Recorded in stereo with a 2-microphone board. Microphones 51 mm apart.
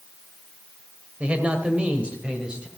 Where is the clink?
I don't hear a clink.